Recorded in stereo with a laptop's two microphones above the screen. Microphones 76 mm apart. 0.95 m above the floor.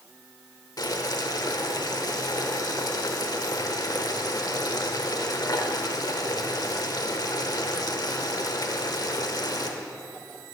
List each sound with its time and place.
0.8 s boiling: 60° left (ahead or behind), 1.0 m